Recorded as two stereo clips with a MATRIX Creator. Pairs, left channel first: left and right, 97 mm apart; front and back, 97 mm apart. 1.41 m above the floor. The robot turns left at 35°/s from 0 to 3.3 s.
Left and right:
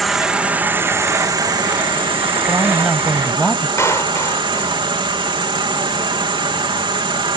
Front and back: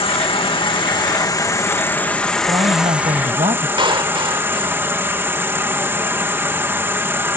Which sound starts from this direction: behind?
A woman speaking, at 2.5 s.